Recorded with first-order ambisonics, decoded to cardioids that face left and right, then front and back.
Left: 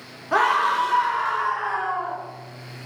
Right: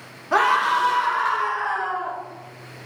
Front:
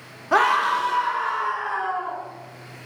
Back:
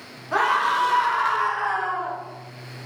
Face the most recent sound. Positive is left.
turn(degrees=-165)